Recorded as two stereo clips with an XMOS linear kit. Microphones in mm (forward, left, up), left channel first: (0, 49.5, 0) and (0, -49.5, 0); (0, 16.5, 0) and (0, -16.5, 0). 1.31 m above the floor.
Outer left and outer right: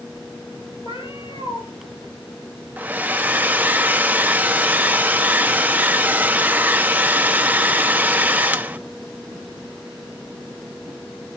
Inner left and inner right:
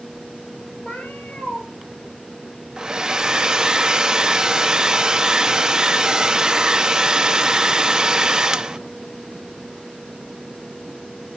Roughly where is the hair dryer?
Centre.